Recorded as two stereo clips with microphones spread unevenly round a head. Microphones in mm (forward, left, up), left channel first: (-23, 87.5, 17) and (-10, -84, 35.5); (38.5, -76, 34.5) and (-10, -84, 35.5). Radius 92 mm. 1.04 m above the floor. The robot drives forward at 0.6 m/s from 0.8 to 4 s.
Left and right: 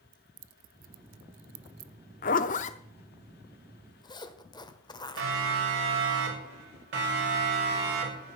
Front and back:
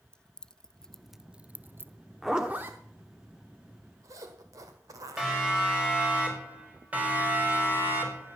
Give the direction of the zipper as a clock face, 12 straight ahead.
9 o'clock.